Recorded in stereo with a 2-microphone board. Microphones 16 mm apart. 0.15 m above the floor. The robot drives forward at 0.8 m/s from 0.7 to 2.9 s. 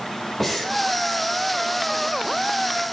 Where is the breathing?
15° left (ahead or behind), 3.5 m.